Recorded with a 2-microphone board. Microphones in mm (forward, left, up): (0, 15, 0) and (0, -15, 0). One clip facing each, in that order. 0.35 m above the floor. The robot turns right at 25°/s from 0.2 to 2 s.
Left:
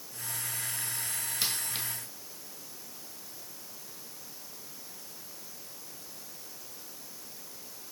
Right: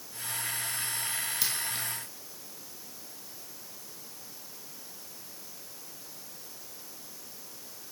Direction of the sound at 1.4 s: 25° left (ahead or behind).